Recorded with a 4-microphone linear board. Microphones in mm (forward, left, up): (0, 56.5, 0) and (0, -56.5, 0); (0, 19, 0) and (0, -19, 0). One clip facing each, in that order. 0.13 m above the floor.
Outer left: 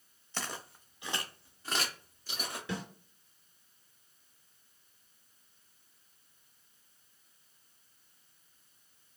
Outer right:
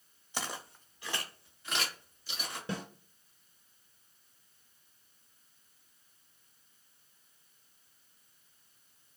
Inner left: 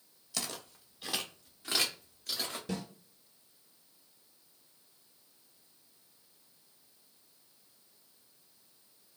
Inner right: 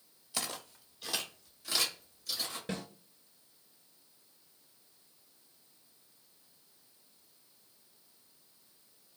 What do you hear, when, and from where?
0.3 s footsteps: 10° right (ahead or behind), 1.1 m; by 2.6 s 50° left (ahead or behind), 2.5 m
2.7 s a snare drum: 35° right (ahead or behind), 1.7 m